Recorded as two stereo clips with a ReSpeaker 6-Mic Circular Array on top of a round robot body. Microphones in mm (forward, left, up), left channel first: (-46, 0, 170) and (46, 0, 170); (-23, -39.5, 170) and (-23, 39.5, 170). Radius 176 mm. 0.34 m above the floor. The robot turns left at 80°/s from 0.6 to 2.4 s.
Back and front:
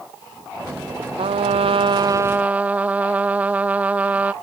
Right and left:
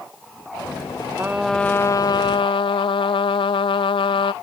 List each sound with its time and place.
1.2 s a trumpet: 20° left; by 4.3 s 75° right